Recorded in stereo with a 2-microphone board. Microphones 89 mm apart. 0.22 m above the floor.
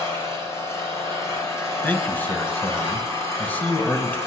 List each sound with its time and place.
0.0 s an engine running: 30° left (ahead or behind), 4 m
1.8 s a man speaking: 20° left (ahead or behind), 1.1 m